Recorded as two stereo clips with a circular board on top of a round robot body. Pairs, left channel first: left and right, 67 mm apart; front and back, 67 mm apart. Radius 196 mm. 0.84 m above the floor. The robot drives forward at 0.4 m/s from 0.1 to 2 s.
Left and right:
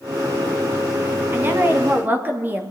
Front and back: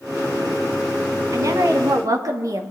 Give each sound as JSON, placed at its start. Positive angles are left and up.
{"t": 1.3, "sound": "a woman speaking", "azimuth_deg": -145, "distance_m": 1.8}